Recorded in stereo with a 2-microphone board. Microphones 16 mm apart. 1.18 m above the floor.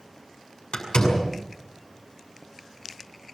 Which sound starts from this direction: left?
A door slam, at 0.7 s.